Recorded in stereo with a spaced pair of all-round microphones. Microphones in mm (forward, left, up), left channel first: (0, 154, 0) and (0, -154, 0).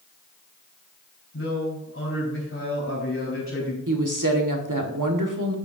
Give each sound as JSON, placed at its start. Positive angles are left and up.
{"t": 1.3, "sound": "a man speaking", "side_deg": 45, "distance_m": 4.5}
{"t": 3.9, "sound": "a woman speaking", "side_deg": -80, "distance_m": 1.5}